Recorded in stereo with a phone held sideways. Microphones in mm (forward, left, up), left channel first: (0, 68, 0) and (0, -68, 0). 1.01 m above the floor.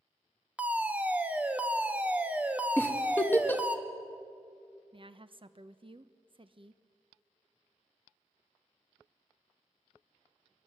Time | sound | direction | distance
0.6 | a fire alarm | 10° right (ahead or behind) | 1.5 m
2.8 | a giggle | 15° left (ahead or behind) | 1.5 m
4.9 | a woman speaking | 40° right (ahead or behind) | 0.9 m